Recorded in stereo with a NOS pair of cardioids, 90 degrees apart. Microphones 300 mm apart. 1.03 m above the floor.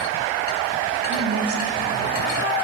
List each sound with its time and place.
1.1 s a woman speaking: 50° right, 7 m